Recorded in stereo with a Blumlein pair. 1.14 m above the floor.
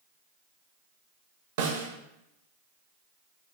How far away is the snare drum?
About 0.6 m.